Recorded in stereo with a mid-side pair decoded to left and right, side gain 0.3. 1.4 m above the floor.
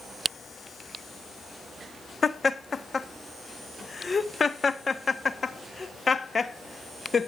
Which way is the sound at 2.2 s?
50° left.